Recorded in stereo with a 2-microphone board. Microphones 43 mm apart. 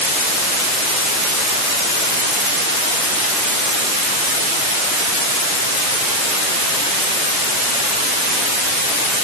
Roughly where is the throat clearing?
No throat clearing in this recording.